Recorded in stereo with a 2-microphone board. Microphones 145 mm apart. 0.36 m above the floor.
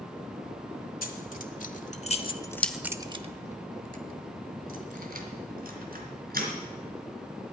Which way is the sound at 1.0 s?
70° left (ahead or behind).